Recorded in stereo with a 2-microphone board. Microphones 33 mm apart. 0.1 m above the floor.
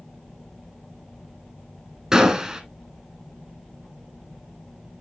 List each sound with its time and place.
2.1 s a gunshot: 20° right (ahead or behind), 1.3 m